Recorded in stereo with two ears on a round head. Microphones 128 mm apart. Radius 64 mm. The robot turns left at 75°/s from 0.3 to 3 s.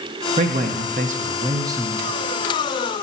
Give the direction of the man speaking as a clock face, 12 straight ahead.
2 o'clock.